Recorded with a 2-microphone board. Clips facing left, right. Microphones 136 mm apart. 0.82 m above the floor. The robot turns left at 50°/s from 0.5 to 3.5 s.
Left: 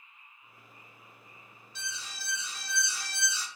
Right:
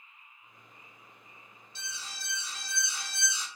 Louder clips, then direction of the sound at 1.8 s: Left 2 dB; 80° right.